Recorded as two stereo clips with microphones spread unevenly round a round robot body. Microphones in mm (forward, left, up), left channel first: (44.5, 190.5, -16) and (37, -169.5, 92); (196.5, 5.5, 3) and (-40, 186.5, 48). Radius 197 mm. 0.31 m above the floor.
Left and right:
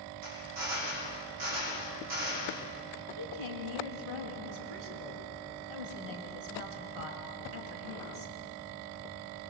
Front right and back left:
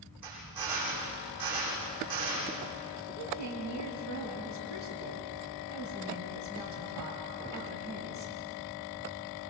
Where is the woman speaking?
90° right, 4 m.